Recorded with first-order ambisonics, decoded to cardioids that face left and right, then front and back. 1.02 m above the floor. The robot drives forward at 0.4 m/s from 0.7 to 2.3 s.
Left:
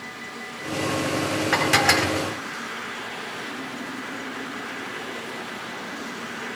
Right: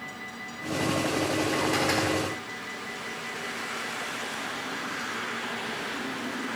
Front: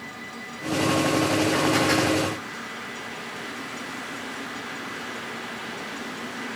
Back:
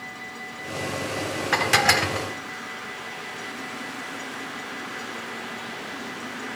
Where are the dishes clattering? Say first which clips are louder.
Left 10 dB, back 8 dB; 135° left, 1.9 m; by 2.3 s 140° left, 2 m.